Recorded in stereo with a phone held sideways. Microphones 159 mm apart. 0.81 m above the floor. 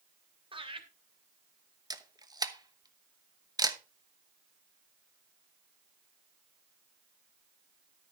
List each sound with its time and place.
0.5 s laughter: 35° right (ahead or behind), 2.5 m
1.9 s a camera shutter: 25° right (ahead or behind), 1.0 m